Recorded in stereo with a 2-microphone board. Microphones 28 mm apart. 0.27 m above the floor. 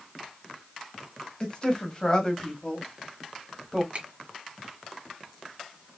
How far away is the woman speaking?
About 1.8 m.